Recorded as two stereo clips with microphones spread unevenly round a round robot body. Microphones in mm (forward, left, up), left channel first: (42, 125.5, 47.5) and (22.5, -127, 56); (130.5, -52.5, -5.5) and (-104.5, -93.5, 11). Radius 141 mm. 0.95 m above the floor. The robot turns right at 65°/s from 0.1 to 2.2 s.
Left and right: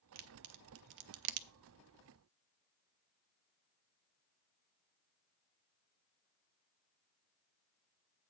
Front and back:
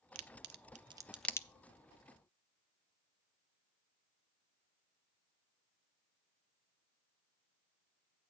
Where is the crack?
150° right, 0.6 m; by 1.5 s 65° right, 0.6 m.